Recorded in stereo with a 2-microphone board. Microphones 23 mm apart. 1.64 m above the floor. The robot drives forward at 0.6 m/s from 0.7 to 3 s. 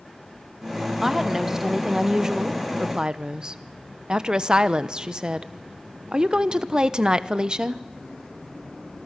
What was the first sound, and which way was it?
A woman speaking, 15° right (ahead or behind).